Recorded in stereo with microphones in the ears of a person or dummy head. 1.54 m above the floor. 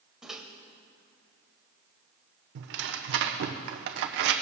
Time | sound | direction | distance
0.2 | a microwave | 5° right (ahead or behind) | 1.2 m
2.5 | tearing paper | 60° right (ahead or behind) | 0.6 m